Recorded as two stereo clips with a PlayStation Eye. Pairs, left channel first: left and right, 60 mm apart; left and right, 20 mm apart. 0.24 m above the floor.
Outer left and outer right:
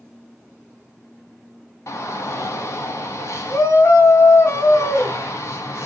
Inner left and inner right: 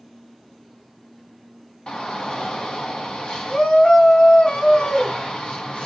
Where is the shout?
55° left (ahead or behind), 1.6 m.